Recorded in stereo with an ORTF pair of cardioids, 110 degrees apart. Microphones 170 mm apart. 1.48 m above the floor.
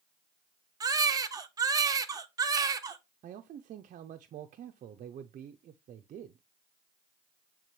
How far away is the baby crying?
About 0.8 m.